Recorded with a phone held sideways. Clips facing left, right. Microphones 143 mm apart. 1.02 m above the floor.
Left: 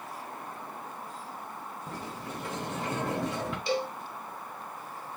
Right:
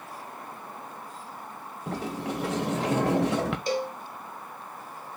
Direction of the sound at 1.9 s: 75° right (ahead or behind).